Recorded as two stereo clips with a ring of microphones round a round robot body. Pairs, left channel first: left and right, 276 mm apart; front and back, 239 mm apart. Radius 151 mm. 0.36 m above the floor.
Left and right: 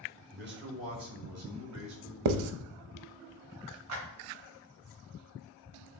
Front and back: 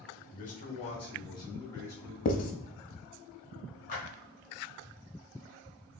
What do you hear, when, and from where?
0.3 s a man speaking: 45° right, 1.7 m; by 2.1 s 80° right, 3 m
2.2 s writing: 60° right, 0.6 m
3.9 s a clap: 60° right, 3.5 m